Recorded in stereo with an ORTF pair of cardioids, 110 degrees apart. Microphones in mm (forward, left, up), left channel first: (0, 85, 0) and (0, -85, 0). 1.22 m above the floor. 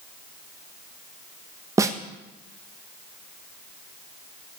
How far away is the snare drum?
About 1.5 m.